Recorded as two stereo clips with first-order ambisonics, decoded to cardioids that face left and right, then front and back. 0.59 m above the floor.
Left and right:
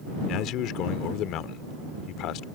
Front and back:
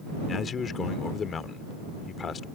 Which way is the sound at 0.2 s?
60° left.